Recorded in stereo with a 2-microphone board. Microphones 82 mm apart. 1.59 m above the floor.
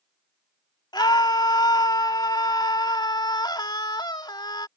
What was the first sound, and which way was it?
A scream, 60° left (ahead or behind).